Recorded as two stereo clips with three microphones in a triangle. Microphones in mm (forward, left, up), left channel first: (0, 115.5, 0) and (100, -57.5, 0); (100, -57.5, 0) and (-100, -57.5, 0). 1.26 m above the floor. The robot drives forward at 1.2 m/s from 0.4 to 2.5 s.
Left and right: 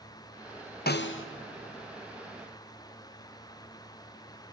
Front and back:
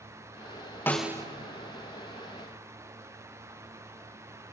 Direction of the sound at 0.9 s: 80° left.